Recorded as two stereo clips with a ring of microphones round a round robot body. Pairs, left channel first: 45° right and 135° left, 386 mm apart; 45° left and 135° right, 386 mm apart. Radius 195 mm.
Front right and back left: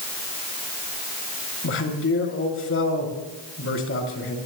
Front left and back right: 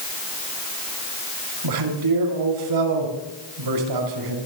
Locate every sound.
1.6 s a man speaking: 105° right, 5.5 m